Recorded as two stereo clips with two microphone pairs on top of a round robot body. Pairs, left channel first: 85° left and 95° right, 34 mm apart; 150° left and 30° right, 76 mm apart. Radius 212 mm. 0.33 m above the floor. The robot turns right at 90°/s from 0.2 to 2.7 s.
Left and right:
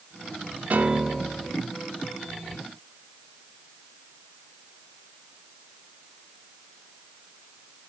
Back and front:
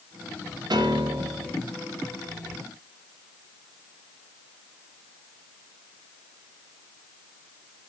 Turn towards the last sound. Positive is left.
turn(degrees=120)